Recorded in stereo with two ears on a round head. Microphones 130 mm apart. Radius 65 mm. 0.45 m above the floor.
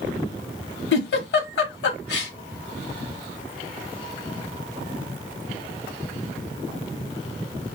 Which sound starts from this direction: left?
A giggle, at 0.9 s.